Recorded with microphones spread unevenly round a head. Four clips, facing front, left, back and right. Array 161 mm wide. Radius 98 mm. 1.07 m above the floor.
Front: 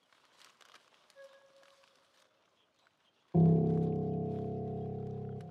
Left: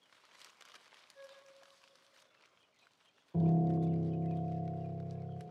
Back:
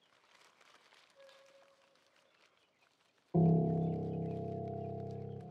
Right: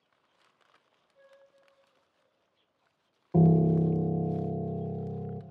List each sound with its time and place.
1.1 s a flute: 25° left, 1.5 m
3.3 s a piano: 80° right, 0.6 m